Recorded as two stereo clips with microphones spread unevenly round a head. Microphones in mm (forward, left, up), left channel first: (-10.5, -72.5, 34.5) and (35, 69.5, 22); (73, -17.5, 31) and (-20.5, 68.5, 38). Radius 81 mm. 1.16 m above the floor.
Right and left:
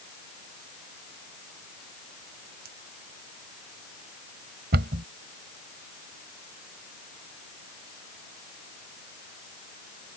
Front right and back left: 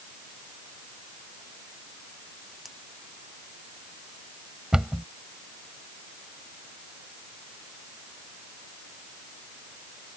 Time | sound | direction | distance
2.6 | a splash | 50° left | ?
4.7 | a cupboard door | 55° left | ?